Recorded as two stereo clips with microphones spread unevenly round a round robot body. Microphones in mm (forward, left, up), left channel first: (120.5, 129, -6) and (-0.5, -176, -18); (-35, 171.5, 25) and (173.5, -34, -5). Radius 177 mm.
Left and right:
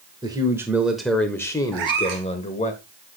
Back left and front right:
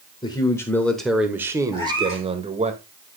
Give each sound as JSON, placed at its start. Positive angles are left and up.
{"t": 0.2, "sound": "a man speaking", "azimuth_deg": -160, "distance_m": 1.0}
{"t": 1.7, "sound": "a cat meowing", "azimuth_deg": -145, "distance_m": 1.8}